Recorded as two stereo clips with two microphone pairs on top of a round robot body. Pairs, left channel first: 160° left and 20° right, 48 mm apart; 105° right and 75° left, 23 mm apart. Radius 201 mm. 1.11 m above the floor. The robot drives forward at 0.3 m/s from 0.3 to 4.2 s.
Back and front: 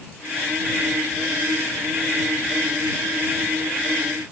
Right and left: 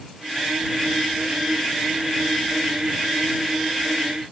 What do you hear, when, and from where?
Only background noise.